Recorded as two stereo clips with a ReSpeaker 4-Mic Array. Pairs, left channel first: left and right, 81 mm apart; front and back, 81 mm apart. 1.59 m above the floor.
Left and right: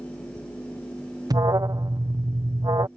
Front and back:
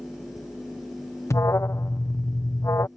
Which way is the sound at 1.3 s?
55° right.